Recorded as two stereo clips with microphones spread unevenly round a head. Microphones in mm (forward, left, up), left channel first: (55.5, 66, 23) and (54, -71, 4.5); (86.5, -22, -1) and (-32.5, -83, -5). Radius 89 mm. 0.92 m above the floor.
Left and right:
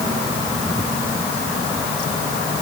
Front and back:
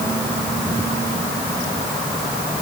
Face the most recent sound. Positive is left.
No sound to turn to.